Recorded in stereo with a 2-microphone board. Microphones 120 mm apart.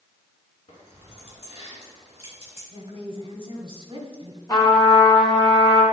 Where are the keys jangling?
55° left (ahead or behind), 3 m; by 2.6 s 50° left (ahead or behind), 5 m.